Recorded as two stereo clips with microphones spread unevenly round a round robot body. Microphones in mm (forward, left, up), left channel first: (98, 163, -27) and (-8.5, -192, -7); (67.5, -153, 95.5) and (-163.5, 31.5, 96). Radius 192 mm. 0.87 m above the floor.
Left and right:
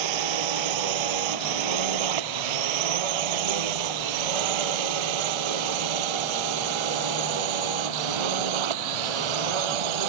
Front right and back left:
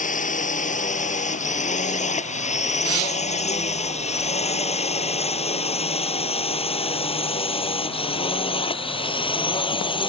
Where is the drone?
105° right; by 10.1 s 110° right.